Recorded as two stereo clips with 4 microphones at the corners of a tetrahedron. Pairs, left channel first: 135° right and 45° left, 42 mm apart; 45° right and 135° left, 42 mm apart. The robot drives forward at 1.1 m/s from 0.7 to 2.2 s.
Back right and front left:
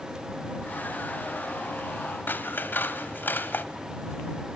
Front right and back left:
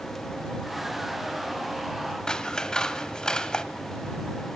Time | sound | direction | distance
2.3 | scissors | 115° right | 1.1 m